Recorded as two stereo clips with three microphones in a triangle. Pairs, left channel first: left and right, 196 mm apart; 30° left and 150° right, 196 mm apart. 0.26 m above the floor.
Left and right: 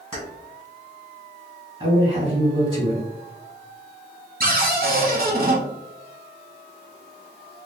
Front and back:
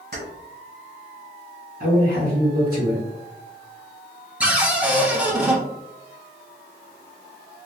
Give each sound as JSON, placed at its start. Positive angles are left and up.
{"t": 0.1, "sound": "keys jangling", "azimuth_deg": -145, "distance_m": 1.6}
{"t": 1.8, "sound": "a man speaking", "azimuth_deg": -145, "distance_m": 1.9}
{"t": 4.4, "sound": "a cupboard door", "azimuth_deg": -65, "distance_m": 0.7}